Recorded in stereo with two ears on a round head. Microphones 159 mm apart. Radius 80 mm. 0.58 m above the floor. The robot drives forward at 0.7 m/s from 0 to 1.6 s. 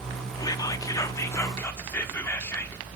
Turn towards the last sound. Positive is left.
turn(degrees=15)  # may be behind; listen again after turning